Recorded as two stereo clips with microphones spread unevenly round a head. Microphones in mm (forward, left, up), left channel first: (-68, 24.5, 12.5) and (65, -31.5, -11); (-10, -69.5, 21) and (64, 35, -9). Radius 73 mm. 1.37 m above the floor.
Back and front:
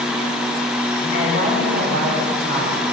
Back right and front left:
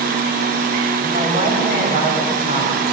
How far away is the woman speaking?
About 7 m.